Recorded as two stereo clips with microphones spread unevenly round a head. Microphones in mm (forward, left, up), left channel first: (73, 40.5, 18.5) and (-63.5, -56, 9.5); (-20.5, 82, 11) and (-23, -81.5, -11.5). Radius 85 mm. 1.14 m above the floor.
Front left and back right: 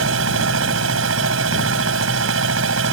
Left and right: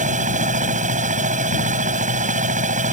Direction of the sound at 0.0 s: 135° right.